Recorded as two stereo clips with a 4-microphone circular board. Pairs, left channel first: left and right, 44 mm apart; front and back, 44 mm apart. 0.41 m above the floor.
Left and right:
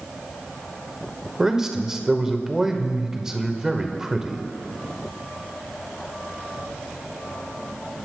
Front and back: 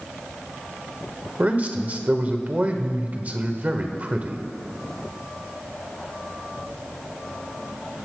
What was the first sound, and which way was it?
A man speaking, 160° right.